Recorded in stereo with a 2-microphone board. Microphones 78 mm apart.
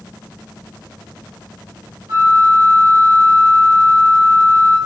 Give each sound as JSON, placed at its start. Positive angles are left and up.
{"t": 2.1, "sound": "a flute", "side_deg": -65, "distance_m": 1.9}